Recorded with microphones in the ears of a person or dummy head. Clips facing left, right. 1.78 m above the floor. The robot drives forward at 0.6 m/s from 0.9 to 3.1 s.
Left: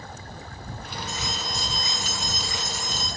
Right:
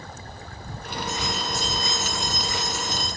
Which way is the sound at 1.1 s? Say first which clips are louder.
Right 5 dB; 15° left (ahead or behind).